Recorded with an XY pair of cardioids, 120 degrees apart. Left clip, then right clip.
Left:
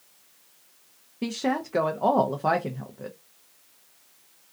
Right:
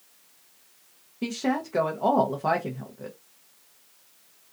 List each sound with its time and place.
1.2 s a woman speaking: 10° left, 0.5 m